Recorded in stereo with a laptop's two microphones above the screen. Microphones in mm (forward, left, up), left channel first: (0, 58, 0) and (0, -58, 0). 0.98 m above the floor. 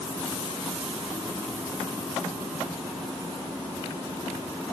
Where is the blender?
No blender in this recording.